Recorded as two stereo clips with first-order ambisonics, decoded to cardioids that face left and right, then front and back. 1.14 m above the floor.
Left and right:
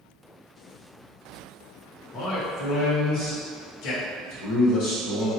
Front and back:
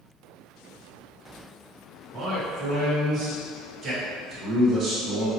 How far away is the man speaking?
About 0.9 m.